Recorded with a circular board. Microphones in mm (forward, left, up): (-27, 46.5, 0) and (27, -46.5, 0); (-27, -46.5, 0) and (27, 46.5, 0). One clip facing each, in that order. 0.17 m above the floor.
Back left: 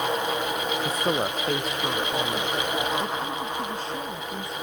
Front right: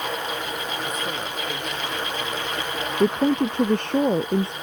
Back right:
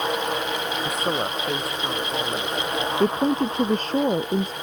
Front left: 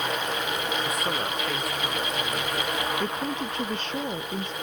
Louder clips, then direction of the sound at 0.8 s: Back left 4 dB, back right 3 dB; 175° left.